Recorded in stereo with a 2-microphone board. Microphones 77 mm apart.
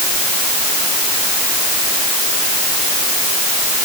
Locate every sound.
Only background noise.